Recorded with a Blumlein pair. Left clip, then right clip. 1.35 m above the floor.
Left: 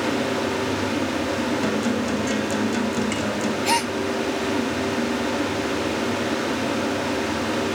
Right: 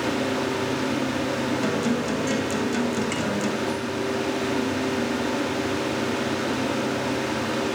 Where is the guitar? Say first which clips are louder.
Left 1 dB; 5° left, 3 m.